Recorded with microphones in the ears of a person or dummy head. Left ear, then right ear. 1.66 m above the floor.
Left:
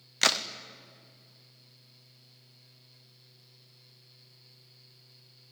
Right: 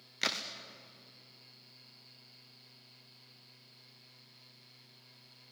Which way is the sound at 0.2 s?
25° left (ahead or behind).